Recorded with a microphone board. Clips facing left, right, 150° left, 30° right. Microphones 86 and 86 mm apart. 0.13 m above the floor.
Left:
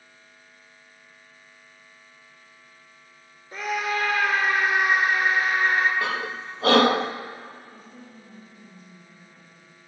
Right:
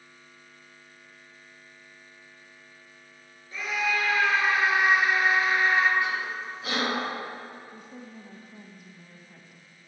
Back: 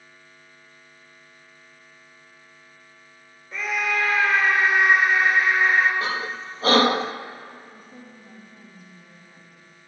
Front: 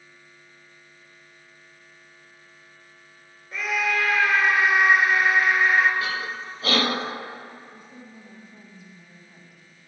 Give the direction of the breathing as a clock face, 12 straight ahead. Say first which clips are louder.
Left 2 dB, back 2 dB; 9 o'clock.